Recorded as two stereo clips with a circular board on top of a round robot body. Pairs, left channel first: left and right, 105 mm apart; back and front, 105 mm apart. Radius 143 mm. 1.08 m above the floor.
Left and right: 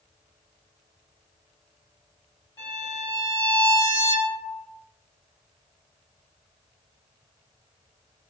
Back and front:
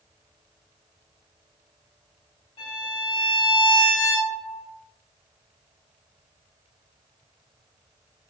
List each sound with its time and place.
2.6 s a violin: 150° left, 1.0 m